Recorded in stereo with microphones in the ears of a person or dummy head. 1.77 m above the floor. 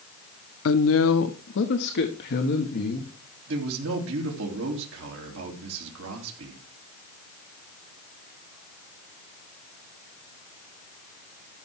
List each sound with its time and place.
0.7 s a woman speaking: 75° left (ahead or behind), 0.9 m; by 3.1 s 55° left (ahead or behind), 2.0 m
3.5 s a man speaking: 75° right (ahead or behind), 3 m